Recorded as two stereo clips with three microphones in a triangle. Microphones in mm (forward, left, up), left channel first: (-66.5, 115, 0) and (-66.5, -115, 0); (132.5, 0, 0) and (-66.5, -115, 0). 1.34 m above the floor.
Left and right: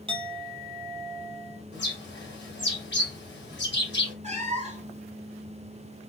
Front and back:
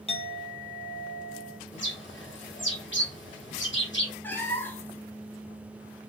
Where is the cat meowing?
50° right, 0.8 m.